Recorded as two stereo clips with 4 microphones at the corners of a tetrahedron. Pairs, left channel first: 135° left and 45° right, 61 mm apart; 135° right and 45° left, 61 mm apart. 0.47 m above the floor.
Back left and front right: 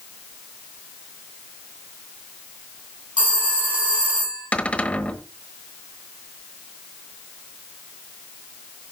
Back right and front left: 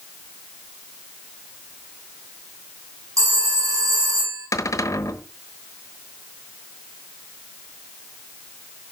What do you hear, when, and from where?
3.2 s a phone ringing: 25° left, 3 m
4.5 s a cupboard door: 155° right, 1.0 m